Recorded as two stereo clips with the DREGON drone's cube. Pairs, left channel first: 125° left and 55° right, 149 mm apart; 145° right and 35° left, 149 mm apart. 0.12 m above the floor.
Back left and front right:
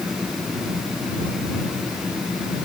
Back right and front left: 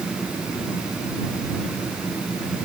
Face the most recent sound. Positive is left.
No sound to turn to.